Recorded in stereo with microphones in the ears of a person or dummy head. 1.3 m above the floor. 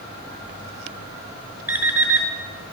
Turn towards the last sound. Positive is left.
turn(degrees=-10)  # may be behind; listen again after turning